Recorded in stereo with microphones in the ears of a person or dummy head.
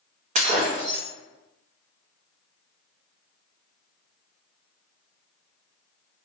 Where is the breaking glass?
40° right (ahead or behind), 0.7 m.